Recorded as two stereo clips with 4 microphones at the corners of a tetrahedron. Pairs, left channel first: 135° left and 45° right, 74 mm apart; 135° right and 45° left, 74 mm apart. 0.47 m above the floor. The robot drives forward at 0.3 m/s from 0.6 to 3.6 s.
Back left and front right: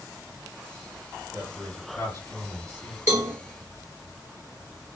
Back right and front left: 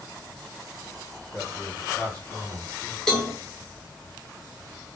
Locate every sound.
1.3 s a man speaking: 160° left, 2 m; by 3.0 s 165° left, 2.5 m
3.1 s a cowbell: 55° right, 0.6 m; by 3.4 s 70° right, 0.5 m